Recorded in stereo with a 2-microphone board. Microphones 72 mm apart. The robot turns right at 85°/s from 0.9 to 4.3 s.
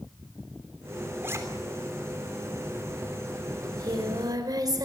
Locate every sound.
1.2 s a zipper: 30° right (ahead or behind), 3.5 m; by 1.4 s 45° right (ahead or behind), 3.5 m
3.6 s singing: 125° right, 4 m; by 4.8 s 65° right, 4 m